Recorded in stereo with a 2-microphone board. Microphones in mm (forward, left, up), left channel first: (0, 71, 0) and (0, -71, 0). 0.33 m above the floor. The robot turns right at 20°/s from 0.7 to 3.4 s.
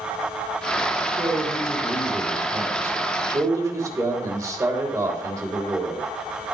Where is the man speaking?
15° right (ahead or behind), 1.6 m; by 6.1 s 25° right (ahead or behind), 1.6 m.